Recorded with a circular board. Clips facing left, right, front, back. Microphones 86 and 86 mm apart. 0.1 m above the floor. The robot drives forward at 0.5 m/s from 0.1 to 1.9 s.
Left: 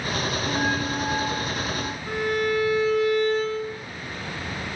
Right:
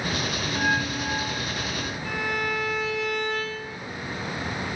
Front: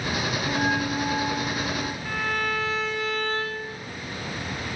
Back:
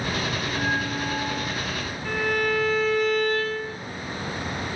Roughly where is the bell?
Ahead.